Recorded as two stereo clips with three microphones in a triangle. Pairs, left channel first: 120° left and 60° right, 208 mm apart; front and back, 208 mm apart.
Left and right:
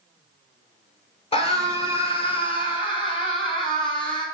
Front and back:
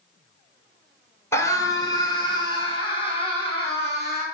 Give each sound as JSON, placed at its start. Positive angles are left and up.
{"t": 1.3, "sound": "a scream", "azimuth_deg": 70, "distance_m": 2.0}